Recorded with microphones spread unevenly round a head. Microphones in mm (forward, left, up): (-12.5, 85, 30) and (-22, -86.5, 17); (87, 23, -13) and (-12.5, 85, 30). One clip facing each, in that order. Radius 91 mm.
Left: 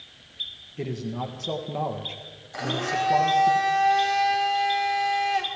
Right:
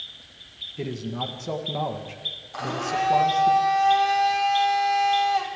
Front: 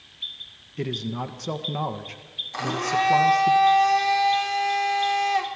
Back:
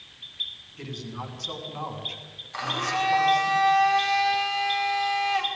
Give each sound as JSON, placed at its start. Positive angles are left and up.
{"t": 0.8, "sound": "a man speaking", "azimuth_deg": 0, "distance_m": 1.7}
{"t": 2.5, "sound": "a blender", "azimuth_deg": 15, "distance_m": 3.5}